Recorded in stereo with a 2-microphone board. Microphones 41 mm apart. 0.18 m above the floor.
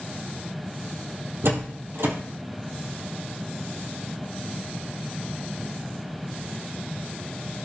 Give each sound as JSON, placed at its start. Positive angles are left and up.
{"t": 1.4, "sound": "a door slam", "side_deg": -65, "distance_m": 3.5}